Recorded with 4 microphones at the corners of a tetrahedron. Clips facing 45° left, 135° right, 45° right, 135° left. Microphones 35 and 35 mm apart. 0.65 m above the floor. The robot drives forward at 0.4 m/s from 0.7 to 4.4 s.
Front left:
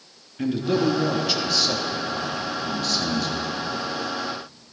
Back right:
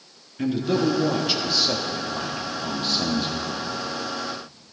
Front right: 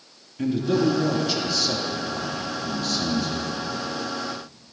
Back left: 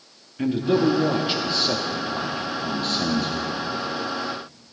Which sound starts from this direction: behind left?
A man speaking, at 0.4 s.